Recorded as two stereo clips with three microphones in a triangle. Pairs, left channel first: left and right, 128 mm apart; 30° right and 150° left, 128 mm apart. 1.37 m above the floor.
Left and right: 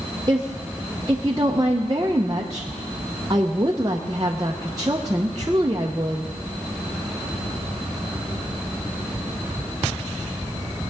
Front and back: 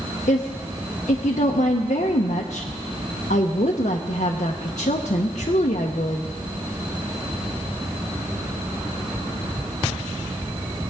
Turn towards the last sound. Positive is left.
turn(degrees=-30)